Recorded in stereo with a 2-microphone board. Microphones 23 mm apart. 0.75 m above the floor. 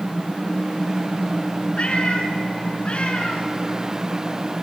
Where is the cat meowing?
55° left (ahead or behind), 3 m.